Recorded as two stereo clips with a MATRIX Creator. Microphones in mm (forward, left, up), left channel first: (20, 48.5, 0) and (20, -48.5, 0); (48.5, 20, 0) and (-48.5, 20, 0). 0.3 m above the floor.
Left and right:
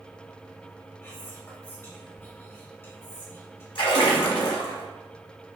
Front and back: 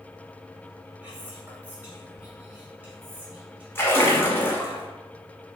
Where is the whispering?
125° left, 1.4 m.